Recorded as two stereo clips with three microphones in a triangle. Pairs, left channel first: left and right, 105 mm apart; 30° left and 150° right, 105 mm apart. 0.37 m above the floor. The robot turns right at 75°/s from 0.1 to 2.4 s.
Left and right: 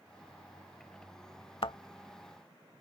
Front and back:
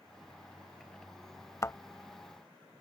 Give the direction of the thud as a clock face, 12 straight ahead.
9 o'clock.